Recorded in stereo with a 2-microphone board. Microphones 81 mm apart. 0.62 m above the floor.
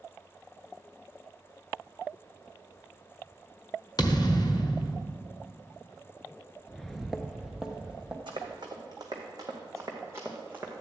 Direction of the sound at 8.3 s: 70° right (ahead or behind).